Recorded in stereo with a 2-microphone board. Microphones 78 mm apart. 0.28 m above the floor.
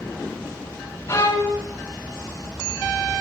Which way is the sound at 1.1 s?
35° left (ahead or behind).